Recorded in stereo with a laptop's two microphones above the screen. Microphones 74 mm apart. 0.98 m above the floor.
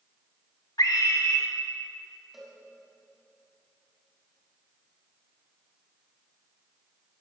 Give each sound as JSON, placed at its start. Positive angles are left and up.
{"t": 0.8, "sound": "a scream", "side_deg": 60, "distance_m": 1.5}
{"t": 2.3, "sound": "a cowbell", "side_deg": -5, "distance_m": 3.5}